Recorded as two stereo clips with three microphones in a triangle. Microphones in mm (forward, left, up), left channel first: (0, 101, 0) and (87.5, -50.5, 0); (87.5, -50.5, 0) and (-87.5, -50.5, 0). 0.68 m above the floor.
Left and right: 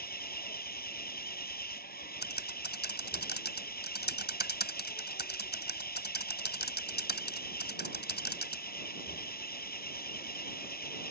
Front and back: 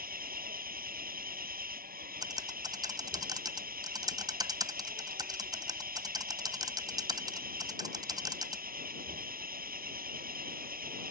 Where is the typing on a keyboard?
115° left.